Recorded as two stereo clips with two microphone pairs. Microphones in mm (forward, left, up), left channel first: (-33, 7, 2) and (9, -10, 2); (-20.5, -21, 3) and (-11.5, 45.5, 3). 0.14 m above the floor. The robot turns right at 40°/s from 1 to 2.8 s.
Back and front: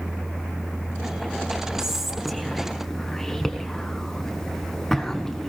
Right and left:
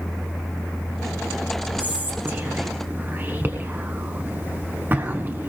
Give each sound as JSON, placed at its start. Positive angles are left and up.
{"t": 1.8, "sound": "whispering", "azimuth_deg": 45, "distance_m": 1.2}